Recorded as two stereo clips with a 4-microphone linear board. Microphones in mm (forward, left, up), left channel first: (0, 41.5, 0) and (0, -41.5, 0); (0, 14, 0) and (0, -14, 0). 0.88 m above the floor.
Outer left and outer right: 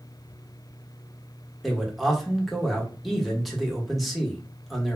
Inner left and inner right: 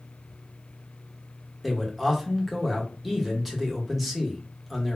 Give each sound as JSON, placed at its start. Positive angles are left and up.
{"t": 1.6, "sound": "a man speaking", "side_deg": 0, "distance_m": 0.8}